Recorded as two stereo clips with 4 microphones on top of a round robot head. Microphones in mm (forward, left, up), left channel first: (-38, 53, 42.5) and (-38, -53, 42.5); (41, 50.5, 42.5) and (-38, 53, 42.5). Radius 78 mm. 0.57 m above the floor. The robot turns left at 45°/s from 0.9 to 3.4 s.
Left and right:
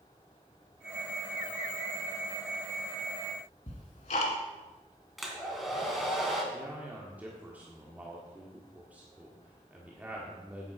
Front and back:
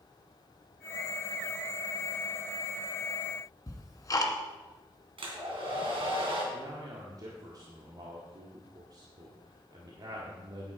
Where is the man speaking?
165° right, 1.6 m.